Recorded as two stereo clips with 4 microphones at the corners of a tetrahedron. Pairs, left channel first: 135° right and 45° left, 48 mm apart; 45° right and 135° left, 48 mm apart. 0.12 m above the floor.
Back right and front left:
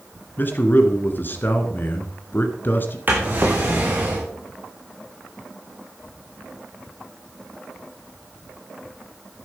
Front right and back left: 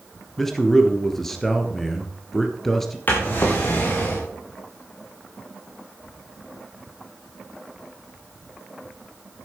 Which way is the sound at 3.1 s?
Straight ahead.